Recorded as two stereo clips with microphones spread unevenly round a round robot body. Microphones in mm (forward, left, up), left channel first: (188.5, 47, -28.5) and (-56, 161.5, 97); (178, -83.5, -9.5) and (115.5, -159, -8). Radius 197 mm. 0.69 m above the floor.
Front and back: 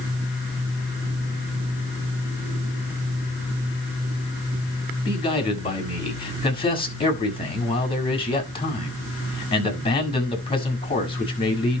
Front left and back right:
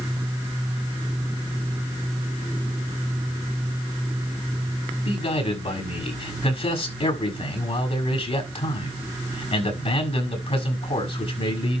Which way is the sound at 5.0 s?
40° left.